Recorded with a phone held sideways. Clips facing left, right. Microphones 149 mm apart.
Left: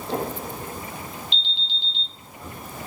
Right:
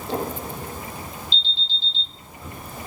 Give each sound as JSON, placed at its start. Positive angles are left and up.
{"t": 1.3, "sound": "an alarm", "side_deg": 15, "distance_m": 2.5}